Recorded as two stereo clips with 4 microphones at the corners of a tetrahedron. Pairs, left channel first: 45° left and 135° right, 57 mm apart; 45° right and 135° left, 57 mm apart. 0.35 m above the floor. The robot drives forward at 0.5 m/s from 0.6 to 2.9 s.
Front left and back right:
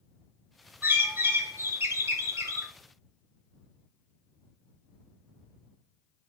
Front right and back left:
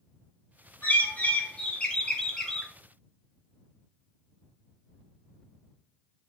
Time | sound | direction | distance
0.8 | a bird | 90° right | 1.7 m